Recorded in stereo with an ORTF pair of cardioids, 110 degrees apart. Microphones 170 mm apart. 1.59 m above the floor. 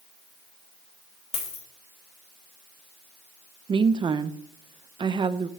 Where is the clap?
No clap in this recording.